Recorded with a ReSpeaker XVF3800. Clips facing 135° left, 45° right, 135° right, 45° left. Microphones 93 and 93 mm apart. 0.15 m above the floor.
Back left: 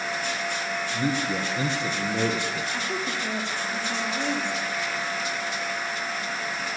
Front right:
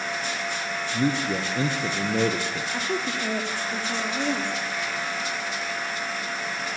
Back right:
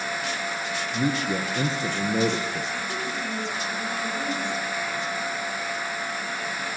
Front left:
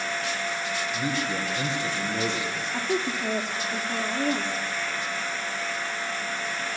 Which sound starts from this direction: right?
A man speaking, at 0.9 s.